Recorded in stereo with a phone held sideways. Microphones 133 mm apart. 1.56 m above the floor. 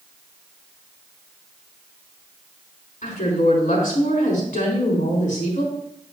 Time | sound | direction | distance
3.0 | a woman speaking | 85° left | 3.5 m